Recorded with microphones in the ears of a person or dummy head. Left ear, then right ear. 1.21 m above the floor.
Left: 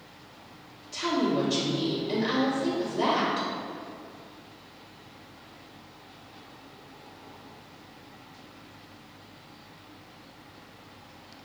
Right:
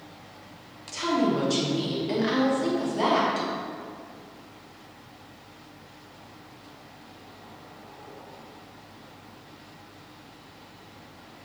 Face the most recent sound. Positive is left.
turn(degrees=-50)  # may be behind; listen again after turning